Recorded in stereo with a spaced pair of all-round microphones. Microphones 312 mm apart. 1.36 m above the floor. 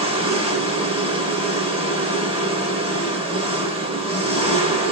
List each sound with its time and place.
0.0 s an engine running: 20° right (ahead or behind), 1.1 m